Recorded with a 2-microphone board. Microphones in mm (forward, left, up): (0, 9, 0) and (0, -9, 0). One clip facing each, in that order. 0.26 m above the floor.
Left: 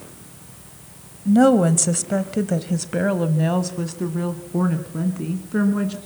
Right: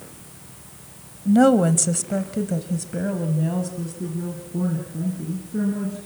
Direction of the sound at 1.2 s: 10° right (ahead or behind).